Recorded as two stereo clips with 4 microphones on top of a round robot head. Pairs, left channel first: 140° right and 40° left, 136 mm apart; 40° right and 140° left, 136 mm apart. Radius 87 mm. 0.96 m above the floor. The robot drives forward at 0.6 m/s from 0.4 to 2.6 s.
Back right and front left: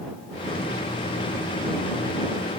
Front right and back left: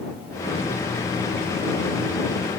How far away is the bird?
I don't hear a bird.